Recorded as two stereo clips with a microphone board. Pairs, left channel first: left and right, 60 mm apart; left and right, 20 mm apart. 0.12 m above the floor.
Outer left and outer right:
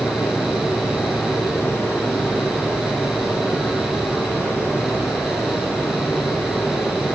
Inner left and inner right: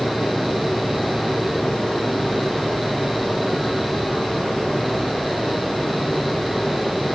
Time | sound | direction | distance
0.0 | running water | 45° left (ahead or behind) | 5.5 m